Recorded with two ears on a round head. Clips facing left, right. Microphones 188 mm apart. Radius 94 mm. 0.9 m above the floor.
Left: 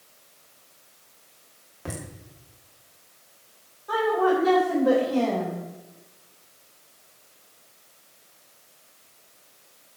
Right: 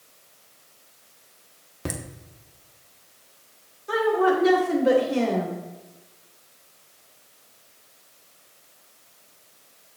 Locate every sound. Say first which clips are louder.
1.9 s laughter: right 4 dB; 45° right (ahead or behind), 2.5 m
3.9 s a woman speaking: right 1 dB; 30° right (ahead or behind), 3 m